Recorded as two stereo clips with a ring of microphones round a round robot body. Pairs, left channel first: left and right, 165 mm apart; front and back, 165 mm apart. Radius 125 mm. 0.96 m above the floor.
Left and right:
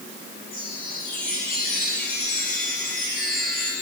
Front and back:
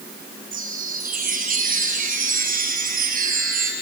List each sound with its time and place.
0.5 s a chime: 145° left, 3.5 m